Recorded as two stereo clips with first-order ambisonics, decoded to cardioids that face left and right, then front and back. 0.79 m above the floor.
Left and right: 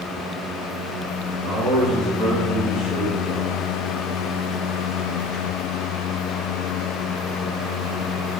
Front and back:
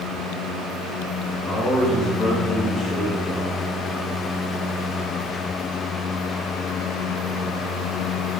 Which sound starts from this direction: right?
A man speaking, at 1.4 s.